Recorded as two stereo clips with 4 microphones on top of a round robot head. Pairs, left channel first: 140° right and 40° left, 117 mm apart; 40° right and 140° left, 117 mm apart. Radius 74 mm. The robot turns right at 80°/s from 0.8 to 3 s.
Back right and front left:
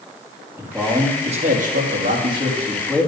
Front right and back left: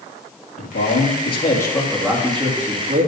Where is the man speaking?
35° right, 3 m; by 3.1 s 140° left, 3 m.